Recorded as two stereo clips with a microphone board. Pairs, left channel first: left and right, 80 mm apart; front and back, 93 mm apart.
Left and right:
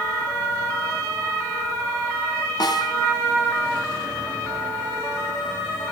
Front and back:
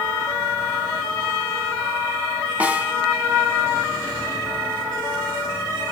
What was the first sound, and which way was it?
A snare drum, 105° left.